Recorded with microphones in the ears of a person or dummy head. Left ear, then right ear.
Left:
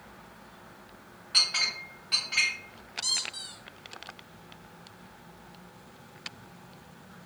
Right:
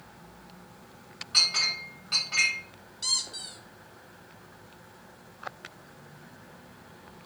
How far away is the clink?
About 1.5 m.